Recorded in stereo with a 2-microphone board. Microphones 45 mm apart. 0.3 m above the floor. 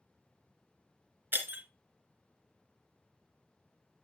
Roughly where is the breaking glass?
Right.